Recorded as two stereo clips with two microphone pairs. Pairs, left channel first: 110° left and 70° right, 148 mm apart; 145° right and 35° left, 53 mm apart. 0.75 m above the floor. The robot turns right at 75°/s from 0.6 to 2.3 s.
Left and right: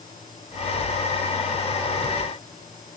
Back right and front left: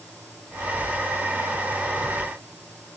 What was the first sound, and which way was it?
Only background noise.